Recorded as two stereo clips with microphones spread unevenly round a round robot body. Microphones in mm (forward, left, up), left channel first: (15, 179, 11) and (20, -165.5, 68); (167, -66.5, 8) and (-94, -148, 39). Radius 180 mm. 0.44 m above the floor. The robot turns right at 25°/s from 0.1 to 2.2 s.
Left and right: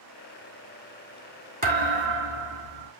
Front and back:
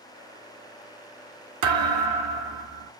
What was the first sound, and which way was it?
A thud, 155° right.